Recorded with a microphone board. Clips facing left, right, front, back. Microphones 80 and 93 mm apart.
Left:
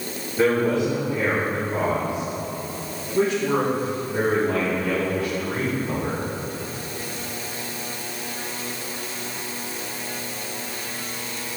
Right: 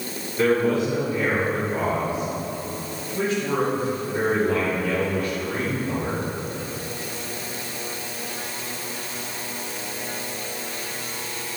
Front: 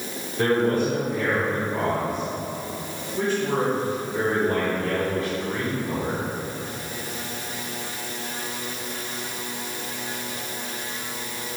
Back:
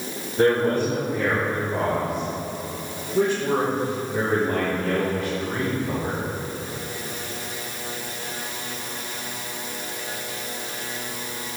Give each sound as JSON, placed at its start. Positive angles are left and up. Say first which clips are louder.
{"t": 0.4, "sound": "a man speaking", "louder": "even, back 2 dB", "azimuth_deg": 155, "distance_m": 3.5}